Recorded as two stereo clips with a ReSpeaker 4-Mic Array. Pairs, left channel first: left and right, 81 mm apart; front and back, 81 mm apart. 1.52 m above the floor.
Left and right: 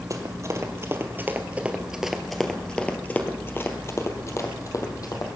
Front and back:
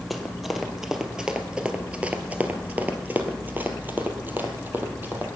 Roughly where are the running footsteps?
Right.